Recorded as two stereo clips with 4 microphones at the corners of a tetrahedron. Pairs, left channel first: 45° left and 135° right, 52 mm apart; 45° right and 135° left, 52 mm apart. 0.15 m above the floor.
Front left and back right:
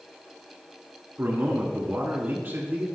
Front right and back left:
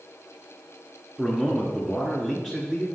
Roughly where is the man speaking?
Behind right.